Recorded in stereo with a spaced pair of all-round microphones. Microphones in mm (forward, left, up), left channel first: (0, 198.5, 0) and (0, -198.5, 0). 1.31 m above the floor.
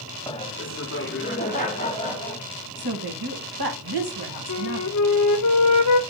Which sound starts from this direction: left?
A flute, at 4.5 s.